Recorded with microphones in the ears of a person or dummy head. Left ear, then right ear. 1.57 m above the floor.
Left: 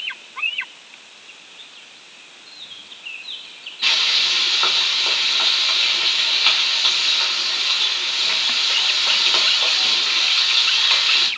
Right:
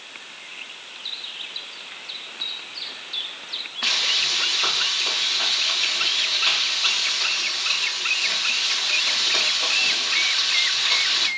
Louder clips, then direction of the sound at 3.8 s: Left 4 dB; 30° left (ahead or behind).